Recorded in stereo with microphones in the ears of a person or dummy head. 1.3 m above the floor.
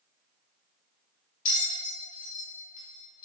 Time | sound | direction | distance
1.4 | a bell | 50° left (ahead or behind) | 1.8 m